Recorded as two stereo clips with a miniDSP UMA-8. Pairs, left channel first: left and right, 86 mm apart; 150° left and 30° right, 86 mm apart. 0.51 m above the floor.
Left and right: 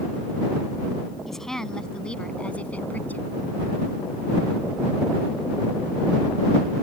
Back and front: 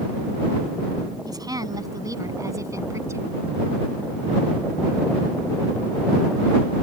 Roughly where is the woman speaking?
Ahead.